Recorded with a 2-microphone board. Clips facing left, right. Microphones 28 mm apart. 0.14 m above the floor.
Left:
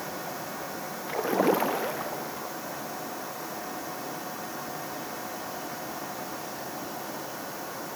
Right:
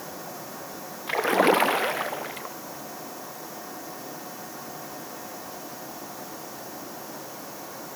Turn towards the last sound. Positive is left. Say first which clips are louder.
# right 4 dB
turn(degrees=-65)  # may be behind; listen again after turning